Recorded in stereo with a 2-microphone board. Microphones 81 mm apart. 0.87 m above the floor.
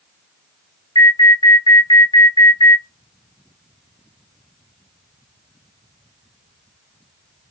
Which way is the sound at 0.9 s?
60° left (ahead or behind).